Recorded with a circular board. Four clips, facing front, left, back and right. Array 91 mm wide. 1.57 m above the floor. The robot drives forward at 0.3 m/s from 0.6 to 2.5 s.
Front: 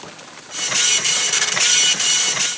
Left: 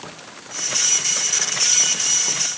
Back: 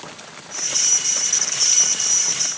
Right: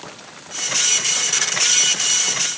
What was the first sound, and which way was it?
Only background noise.